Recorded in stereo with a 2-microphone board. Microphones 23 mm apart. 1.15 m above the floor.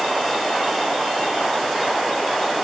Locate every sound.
Only background noise.